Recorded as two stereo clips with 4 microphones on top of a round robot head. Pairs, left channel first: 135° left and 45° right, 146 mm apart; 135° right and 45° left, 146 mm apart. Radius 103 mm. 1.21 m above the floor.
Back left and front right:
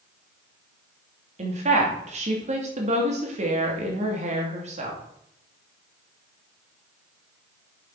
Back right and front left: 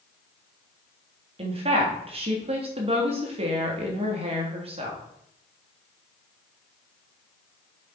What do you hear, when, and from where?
1.4 s a woman speaking: 5° right, 3 m